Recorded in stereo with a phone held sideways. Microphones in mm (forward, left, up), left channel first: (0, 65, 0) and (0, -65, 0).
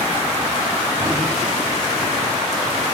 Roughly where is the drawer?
Right.